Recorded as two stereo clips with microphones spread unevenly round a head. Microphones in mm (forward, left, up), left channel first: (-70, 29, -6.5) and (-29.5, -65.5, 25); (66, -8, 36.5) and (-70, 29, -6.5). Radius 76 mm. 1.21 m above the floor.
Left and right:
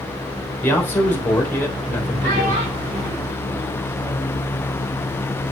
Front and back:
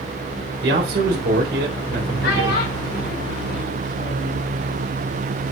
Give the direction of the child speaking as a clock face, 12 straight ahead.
1 o'clock.